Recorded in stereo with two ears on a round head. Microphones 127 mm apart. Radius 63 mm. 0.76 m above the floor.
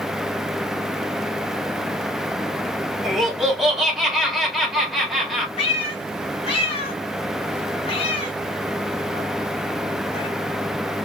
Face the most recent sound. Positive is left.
turn(degrees=40)  # may be behind; listen again after turning